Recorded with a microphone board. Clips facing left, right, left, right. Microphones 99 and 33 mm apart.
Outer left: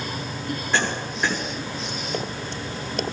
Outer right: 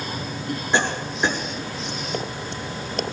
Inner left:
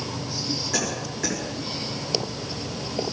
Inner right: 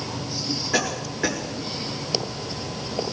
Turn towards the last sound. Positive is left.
turn(degrees=-20)  # may be behind; listen again after turning